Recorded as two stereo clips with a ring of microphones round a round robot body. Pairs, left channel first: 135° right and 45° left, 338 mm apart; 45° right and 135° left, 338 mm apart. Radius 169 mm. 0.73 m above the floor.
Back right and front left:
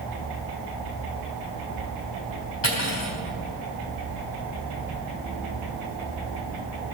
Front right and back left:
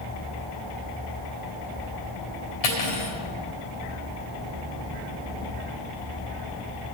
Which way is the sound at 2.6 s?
80° right.